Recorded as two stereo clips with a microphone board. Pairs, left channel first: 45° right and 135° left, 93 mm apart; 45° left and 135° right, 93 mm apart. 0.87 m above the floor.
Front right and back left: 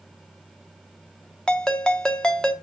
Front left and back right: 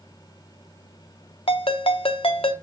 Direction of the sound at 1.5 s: 35° left.